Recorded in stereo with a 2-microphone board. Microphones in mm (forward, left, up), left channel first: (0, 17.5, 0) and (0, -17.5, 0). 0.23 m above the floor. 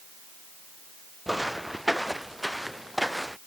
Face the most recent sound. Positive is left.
turn(degrees=0)  # may be behind; listen again after turning